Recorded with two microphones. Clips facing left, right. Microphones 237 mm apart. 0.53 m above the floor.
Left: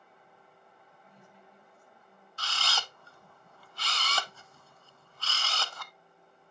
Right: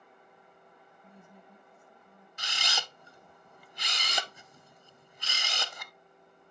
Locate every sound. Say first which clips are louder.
1.0 s a woman speaking: right 4 dB; 55° right (ahead or behind), 2.5 m
2.4 s a camera shutter: left 1 dB; 15° right (ahead or behind), 0.5 m